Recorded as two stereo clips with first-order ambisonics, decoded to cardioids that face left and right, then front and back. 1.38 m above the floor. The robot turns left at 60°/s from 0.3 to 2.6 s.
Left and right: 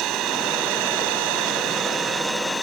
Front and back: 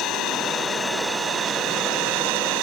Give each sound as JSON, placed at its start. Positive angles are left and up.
{"t": 0.0, "sound": "an engine running", "azimuth_deg": -50}